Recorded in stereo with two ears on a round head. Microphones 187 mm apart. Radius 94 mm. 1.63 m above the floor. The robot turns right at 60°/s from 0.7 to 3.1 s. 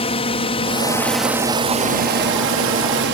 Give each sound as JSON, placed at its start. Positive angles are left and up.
{"t": 0.0, "sound": "a drone", "side_deg": 30}